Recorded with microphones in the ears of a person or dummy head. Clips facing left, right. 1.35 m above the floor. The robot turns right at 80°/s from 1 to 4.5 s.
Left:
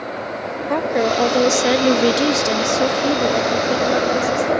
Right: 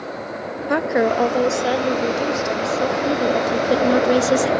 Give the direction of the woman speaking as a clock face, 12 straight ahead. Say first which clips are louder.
Even; 12 o'clock.